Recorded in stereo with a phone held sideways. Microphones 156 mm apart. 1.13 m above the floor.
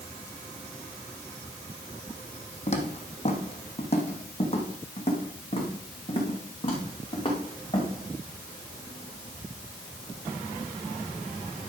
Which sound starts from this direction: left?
Footsteps, at 2.7 s.